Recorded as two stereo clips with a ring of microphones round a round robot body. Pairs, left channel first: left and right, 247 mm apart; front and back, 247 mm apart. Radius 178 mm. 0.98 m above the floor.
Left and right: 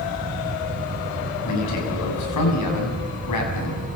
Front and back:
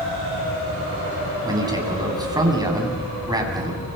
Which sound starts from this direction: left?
A man speaking, at 1.4 s.